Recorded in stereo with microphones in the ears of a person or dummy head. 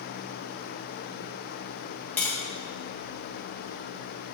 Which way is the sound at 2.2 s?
5° left (ahead or behind).